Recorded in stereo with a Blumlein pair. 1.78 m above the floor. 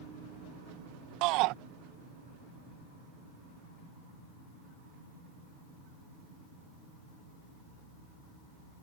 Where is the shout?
40° right.